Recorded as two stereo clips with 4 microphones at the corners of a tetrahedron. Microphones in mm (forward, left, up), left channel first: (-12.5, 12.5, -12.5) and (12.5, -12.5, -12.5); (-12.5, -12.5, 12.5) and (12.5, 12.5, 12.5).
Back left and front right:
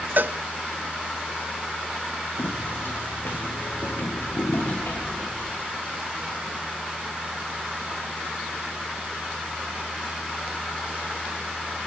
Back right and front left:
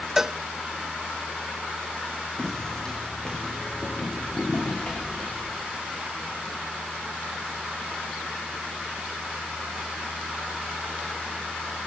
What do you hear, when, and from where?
0.2 s a cowbell: 30° right, 0.5 m
2.4 s footsteps: 150° left, 4.5 m; by 5.5 s 170° left, 7.5 m